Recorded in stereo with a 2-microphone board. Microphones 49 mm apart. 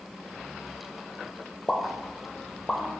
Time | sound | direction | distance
1.7 | a pop | 15° left (ahead or behind) | 0.7 m